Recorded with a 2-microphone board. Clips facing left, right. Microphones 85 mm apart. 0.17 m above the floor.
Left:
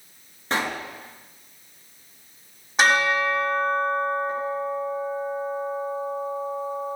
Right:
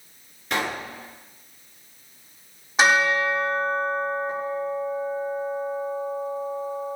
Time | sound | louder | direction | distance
0.5 | a pop | left 1 dB | 35° left (ahead or behind) | 3 m
2.8 | a bell | right 1 dB | centre (ahead or behind) | 6.5 m